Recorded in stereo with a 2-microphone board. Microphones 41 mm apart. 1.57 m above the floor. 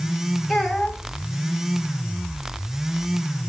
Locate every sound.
0.5 s a child speaking: 5° left (ahead or behind), 3 m